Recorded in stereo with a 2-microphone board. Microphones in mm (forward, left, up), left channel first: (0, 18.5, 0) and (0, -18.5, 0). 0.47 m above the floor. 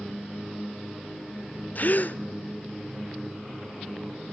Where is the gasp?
45° left (ahead or behind), 0.9 m.